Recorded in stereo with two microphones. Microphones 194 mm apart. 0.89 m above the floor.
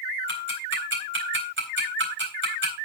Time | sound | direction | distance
0.3 | ticking | 85° right | 4 m